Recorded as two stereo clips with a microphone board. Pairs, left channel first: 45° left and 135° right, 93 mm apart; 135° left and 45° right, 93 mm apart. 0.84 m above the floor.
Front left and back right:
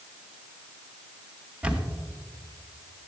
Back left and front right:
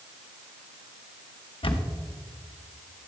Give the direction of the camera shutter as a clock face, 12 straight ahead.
7 o'clock.